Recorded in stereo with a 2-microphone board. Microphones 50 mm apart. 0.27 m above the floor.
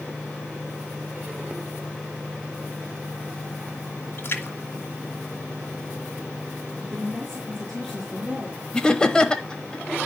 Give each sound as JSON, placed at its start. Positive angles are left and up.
{"t": 4.2, "sound": "a splash", "side_deg": 45, "distance_m": 1.8}
{"t": 6.8, "sound": "a woman speaking", "side_deg": 5, "distance_m": 4.0}
{"t": 8.7, "sound": "laughter", "side_deg": 15, "distance_m": 1.0}